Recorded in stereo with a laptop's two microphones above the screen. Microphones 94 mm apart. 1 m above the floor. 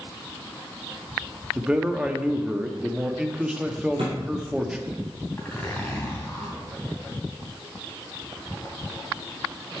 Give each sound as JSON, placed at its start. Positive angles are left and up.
{"t": 1.6, "sound": "a man speaking", "side_deg": -10, "distance_m": 1.6}
{"t": 4.0, "sound": "a thud", "side_deg": -80, "distance_m": 5.0}
{"t": 5.4, "sound": "a zipper", "side_deg": 20, "distance_m": 3.0}